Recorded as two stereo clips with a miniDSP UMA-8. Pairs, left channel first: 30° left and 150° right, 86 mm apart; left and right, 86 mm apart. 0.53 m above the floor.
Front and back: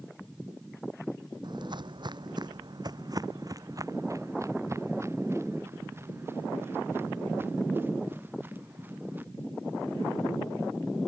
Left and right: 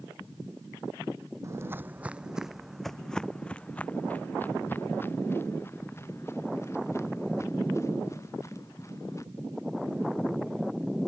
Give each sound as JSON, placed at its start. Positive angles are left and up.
{"t": 1.4, "sound": "footsteps", "azimuth_deg": -140}